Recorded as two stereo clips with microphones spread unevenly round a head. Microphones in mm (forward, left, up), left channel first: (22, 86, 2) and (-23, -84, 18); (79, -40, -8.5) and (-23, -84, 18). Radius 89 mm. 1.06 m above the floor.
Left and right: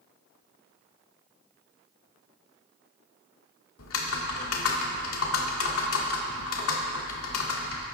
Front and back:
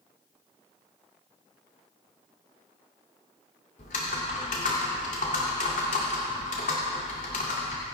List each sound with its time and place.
3.8 s typing on a keyboard: 70° left, 1.9 m